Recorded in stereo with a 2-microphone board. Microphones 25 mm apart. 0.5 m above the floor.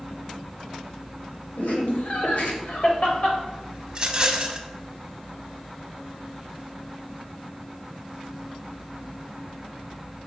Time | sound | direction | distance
1.6 | laughter | 70° left (ahead or behind) | 1.7 m
3.9 | a rattle | 35° right (ahead or behind) | 0.8 m